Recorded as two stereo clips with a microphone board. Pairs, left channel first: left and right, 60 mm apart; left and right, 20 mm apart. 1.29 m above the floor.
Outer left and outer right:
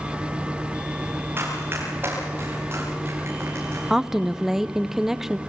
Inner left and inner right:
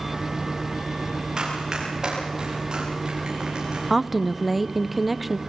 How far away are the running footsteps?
About 9.5 m.